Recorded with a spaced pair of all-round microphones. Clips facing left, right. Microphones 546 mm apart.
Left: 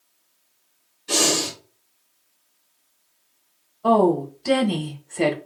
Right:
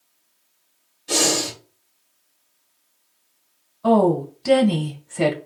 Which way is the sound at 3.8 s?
30° right (ahead or behind).